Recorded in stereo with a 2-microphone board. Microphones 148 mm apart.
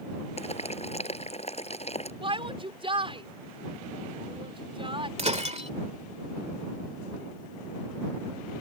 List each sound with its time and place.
0.4 s boiling: 45° left (ahead or behind)
2.2 s a shout: 35° right (ahead or behind)
5.2 s breaking glass: 45° right (ahead or behind)